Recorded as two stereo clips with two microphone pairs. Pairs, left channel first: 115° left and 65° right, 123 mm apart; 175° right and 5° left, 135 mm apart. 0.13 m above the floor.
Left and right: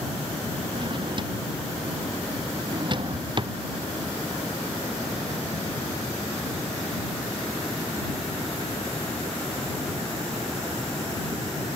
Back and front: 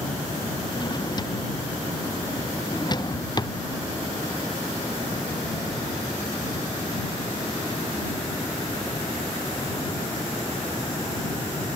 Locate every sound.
0.8 s a drawer: 115° right